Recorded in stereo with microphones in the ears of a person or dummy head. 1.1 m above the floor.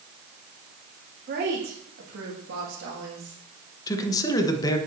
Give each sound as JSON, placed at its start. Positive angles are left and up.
{"t": 1.3, "sound": "a woman speaking", "side_deg": -45, "distance_m": 2.0}
{"t": 3.9, "sound": "a man speaking", "side_deg": 20, "distance_m": 0.9}